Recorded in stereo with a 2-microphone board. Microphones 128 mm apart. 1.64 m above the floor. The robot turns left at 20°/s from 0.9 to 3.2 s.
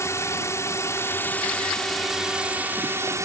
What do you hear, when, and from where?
0.0 s a drone: 20° left; by 3.2 s 25° right